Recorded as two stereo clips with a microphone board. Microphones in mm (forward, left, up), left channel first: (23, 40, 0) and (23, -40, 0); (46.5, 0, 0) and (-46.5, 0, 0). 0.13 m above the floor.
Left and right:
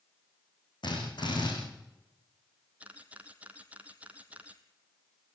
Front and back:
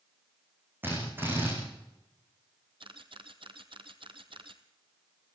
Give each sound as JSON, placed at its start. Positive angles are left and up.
{"t": 0.8, "sound": "a drill", "azimuth_deg": 115, "distance_m": 6.5}
{"t": 2.8, "sound": "a camera shutter", "azimuth_deg": -160, "distance_m": 1.2}